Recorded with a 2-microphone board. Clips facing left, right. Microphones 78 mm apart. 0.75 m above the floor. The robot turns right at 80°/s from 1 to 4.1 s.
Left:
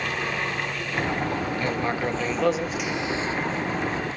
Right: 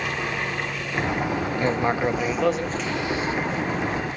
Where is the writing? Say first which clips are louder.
Right 6 dB; 30° right (ahead or behind), 0.8 m; by 4.2 s 25° left (ahead or behind), 0.8 m.